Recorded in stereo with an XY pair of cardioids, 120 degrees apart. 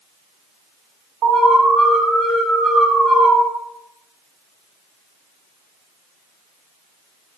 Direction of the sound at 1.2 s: 65° right.